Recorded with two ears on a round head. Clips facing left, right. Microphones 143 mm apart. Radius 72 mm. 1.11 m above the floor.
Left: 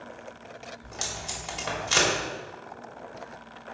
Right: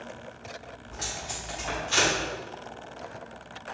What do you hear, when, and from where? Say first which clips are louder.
0.8 s tape being pulled: even; 85° left, 3 m